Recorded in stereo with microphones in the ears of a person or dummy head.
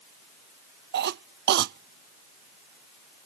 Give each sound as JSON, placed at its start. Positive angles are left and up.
{"t": 0.9, "sound": "a cough", "side_deg": -55}